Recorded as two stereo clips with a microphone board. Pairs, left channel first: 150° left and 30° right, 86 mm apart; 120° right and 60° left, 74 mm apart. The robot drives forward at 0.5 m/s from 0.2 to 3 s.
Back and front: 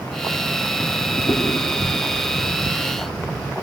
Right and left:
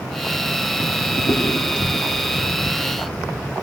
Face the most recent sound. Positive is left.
turn(degrees=-145)